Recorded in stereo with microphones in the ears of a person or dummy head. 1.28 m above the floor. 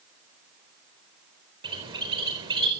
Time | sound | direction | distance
1.6 | a bird | 25° right (ahead or behind) | 4 m